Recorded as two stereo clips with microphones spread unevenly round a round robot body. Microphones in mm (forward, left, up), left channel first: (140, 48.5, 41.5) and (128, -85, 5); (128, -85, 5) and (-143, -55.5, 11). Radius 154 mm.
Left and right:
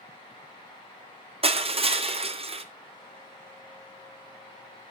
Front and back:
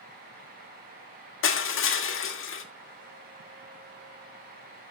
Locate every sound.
1.4 s crushing: 50° right, 1.7 m